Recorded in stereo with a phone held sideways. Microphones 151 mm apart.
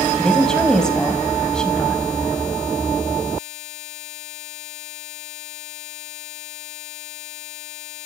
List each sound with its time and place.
0.2 s a woman speaking: 5° left (ahead or behind), 5 m